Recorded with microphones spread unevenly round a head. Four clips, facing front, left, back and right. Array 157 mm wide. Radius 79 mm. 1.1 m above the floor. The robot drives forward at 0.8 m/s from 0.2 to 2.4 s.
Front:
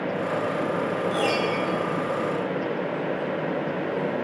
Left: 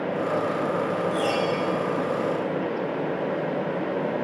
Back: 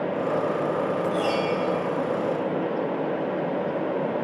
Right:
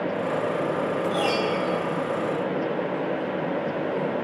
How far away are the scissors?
No scissors in this recording.